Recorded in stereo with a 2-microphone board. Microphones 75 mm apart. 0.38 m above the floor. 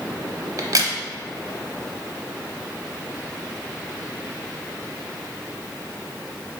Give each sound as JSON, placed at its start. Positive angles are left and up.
{"t": 0.6, "sound": "a crack", "side_deg": -55, "distance_m": 0.7}